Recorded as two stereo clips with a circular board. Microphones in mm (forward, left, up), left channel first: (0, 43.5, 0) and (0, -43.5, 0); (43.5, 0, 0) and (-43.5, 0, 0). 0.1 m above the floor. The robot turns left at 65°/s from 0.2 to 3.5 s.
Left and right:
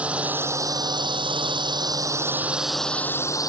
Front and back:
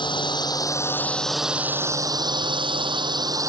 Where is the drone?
15° right; by 3.5 s 130° left.